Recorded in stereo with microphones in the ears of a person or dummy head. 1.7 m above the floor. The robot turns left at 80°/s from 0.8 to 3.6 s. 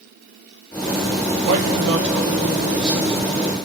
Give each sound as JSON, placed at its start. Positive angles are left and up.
{"t": 1.5, "sound": "a man speaking", "azimuth_deg": -70, "distance_m": 1.8}